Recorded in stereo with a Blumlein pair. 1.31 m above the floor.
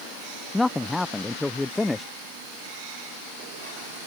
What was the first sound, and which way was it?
A man speaking, 5° left.